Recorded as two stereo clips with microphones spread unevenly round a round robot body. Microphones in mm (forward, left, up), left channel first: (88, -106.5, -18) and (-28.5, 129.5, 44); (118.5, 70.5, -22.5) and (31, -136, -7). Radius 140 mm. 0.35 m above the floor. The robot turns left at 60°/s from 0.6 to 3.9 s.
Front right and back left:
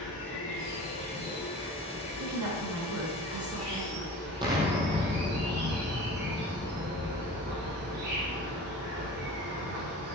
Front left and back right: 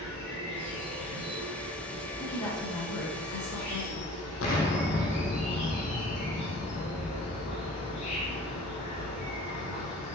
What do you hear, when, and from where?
0.0 s an insect: 95° right, 4.5 m; by 10.2 s 65° left, 4.5 m
2.2 s a woman speaking: 125° left, 4.5 m; by 4.2 s 20° left, 4.5 m
4.4 s an explosion: 45° left, 3.5 m